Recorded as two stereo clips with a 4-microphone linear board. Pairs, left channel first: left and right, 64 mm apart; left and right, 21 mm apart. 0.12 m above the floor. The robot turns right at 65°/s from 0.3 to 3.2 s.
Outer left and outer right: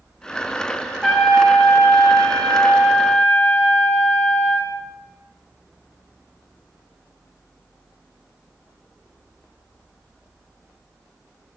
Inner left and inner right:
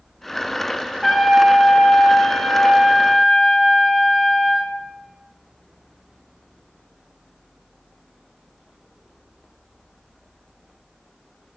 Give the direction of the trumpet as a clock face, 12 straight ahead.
12 o'clock.